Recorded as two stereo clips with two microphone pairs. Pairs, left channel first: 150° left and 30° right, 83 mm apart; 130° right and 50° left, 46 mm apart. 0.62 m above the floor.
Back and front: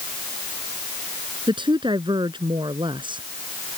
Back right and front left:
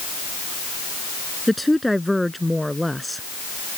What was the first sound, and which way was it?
A woman speaking, 40° right.